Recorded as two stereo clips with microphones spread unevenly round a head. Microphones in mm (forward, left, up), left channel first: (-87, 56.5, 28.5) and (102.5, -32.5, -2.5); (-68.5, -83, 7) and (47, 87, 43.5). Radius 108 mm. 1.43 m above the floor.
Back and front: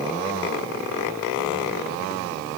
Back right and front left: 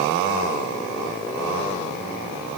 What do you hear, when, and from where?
Only background noise.